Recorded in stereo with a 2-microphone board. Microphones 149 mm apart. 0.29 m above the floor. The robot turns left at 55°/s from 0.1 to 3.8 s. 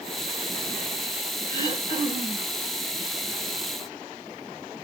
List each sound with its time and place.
1.5 s throat clearing: 145° left, 1.2 m; by 2.5 s 90° left, 1.2 m